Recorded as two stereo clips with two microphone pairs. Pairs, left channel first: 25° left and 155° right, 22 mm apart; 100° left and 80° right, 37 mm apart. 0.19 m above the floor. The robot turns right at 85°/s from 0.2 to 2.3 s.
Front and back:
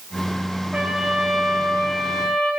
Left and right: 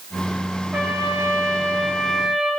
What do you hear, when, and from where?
0.7 s a trumpet: 110° right, 5.5 m; by 2.5 s 20° left, 5.5 m